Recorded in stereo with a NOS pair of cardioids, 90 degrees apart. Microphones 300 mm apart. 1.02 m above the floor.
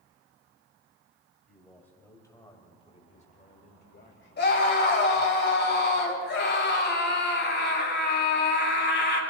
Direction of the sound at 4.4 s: 35° left.